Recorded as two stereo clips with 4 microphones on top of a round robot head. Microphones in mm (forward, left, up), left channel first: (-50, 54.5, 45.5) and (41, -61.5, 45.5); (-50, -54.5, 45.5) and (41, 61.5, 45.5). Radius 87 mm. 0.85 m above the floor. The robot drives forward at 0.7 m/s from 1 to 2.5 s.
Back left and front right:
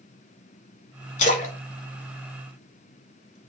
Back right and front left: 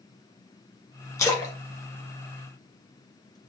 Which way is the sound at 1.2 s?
165° left.